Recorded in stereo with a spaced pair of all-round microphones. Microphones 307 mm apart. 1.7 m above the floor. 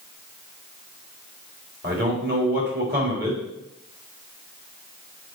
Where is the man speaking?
35° right (ahead or behind), 3.5 m.